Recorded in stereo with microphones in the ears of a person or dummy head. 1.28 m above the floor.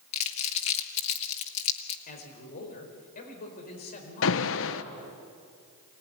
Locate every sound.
0.1 s crumpling: 35° left (ahead or behind), 2.0 m
2.1 s a man speaking: 45° left (ahead or behind), 4.5 m
4.2 s an alarm: 65° left (ahead or behind), 0.9 m